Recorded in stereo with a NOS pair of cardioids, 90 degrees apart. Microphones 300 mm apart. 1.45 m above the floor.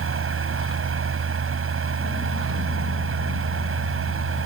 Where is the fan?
45° right.